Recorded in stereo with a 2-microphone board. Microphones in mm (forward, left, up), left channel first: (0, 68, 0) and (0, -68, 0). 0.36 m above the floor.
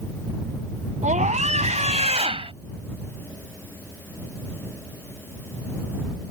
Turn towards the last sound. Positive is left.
turn(degrees=-45)  # may be behind; listen again after turning